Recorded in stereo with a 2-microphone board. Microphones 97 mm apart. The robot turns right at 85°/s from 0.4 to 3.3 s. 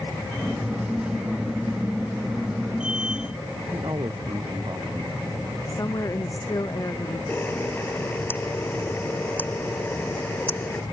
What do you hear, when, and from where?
3.7 s a man speaking: 45° right (ahead or behind)
5.7 s a woman speaking: 35° left (ahead or behind)
7.3 s a camera shutter: 20° left (ahead or behind)